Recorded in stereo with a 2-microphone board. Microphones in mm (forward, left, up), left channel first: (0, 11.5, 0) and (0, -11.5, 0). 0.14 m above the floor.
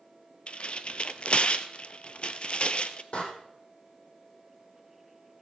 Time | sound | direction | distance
0.5 | tearing paper | 45° left (ahead or behind) | 1.0 m
3.1 | a door slam | 45° left (ahead or behind) | 4 m